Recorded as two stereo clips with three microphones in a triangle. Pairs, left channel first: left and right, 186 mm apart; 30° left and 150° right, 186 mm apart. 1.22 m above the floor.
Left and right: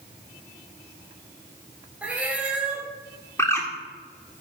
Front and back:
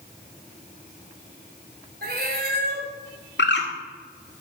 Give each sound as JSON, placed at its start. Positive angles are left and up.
{"t": 2.0, "sound": "a cat meowing", "azimuth_deg": -175, "distance_m": 2.0}
{"t": 3.4, "sound": "a bird", "azimuth_deg": 15, "distance_m": 1.7}